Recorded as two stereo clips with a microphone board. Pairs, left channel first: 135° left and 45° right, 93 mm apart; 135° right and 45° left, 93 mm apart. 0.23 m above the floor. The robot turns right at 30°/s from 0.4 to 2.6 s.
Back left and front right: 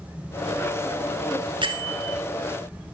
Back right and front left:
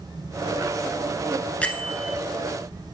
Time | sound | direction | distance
1.6 | a bell | 60° right | 1.0 m